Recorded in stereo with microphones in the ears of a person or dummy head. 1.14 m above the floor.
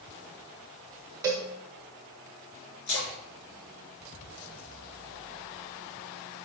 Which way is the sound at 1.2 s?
15° right (ahead or behind).